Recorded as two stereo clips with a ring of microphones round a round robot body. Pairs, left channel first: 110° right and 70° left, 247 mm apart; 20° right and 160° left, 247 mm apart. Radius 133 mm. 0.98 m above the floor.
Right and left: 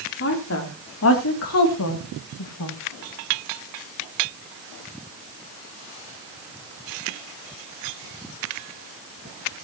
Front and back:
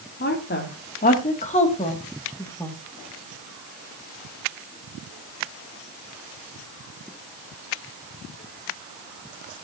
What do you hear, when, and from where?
0.2 s a woman speaking: 70° right, 3 m; by 2.8 s 105° right, 2 m